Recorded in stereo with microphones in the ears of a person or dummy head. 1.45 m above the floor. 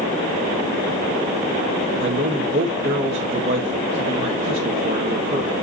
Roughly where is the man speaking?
Right.